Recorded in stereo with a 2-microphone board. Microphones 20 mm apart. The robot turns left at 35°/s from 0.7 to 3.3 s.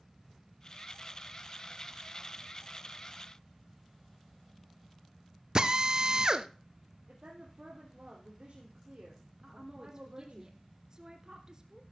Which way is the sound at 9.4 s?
30° right (ahead or behind).